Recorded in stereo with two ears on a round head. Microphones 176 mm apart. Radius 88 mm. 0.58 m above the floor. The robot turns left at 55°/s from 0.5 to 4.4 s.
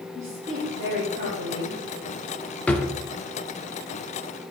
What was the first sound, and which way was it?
A woman speaking, 15° right.